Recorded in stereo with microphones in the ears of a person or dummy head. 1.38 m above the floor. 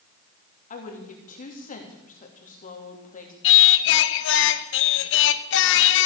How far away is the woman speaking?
About 3 m.